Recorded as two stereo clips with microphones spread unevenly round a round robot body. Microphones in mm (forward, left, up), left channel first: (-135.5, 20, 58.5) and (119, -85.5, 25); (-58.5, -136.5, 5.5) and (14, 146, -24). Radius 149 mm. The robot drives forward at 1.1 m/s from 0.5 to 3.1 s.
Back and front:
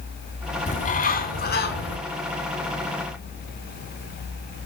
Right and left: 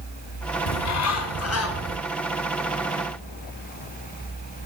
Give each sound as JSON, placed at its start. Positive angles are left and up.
{"t": 0.7, "sound": "a bird", "azimuth_deg": -135, "distance_m": 3.5}